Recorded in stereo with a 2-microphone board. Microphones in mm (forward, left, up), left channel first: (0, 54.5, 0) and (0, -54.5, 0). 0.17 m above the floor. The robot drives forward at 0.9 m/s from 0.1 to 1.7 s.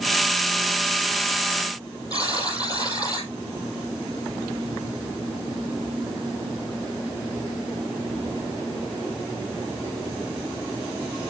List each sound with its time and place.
2.1 s a buzzer: 35° left (ahead or behind), 4 m